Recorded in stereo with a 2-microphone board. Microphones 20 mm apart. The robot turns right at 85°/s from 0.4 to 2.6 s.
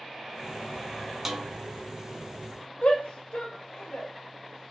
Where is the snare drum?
15° right (ahead or behind), 0.6 m; by 1.5 s 25° right (ahead or behind), 0.6 m.